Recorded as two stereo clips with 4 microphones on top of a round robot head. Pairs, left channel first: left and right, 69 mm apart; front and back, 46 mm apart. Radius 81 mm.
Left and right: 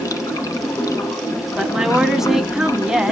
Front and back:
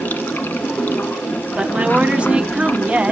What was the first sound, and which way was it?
Running water, 50° left.